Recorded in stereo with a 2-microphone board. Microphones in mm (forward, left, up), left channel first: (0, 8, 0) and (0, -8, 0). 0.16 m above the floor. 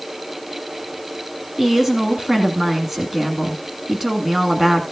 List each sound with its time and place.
1.6 s a woman speaking: 30° right (ahead or behind), 1.4 m